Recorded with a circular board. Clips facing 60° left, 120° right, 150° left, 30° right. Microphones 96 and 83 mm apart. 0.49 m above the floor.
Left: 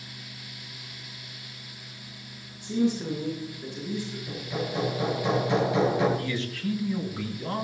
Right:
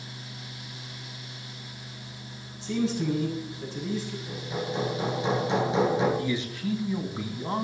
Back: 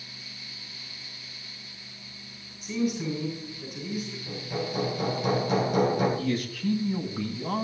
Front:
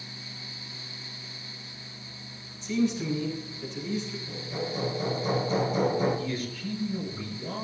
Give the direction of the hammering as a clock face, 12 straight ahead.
6 o'clock.